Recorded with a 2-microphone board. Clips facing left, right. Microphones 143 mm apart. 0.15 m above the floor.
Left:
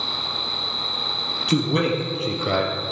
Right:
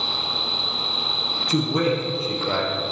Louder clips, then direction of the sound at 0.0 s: Right 1 dB; 5° left (ahead or behind).